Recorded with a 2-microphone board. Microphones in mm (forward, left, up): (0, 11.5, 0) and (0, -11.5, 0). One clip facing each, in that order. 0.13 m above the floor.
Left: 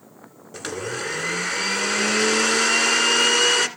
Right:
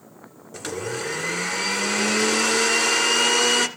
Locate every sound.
0.5 s a blender: 15° left (ahead or behind), 1.4 m